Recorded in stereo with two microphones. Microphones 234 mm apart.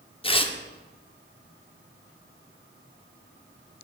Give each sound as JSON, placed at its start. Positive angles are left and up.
{"t": 0.2, "sound": "tearing paper", "side_deg": 25, "distance_m": 0.6}